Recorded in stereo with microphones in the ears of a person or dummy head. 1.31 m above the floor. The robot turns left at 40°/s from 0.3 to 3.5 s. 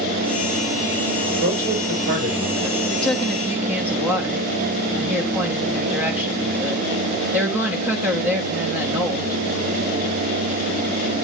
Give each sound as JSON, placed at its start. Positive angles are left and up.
{"t": 1.4, "sound": "a man speaking", "azimuth_deg": -100, "distance_m": 6.0}
{"t": 2.9, "sound": "a woman speaking", "side_deg": 10, "distance_m": 1.2}